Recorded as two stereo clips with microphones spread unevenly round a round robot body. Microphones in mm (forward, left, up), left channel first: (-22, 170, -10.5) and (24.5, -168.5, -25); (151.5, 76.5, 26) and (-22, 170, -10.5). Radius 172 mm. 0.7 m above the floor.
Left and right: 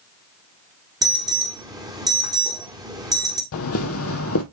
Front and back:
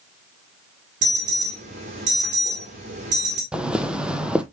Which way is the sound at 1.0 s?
160° right.